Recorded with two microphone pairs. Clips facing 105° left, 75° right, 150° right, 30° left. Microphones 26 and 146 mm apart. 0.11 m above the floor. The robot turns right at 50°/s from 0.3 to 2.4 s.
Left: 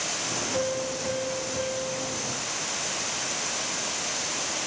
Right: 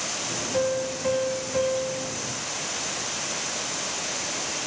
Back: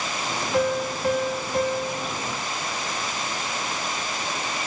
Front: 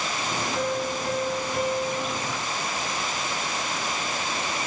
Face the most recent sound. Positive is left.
turn(degrees=-60)